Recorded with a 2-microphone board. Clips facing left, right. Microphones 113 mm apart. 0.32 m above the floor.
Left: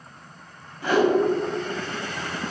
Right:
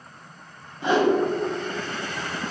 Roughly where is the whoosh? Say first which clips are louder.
Even; right.